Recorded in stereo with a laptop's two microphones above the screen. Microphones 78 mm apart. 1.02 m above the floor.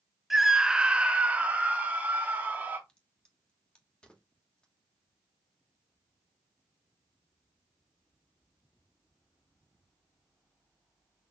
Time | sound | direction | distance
0.3 | a scream | centre (ahead or behind) | 0.5 m
2.9 | a crack | 15° left (ahead or behind) | 1.3 m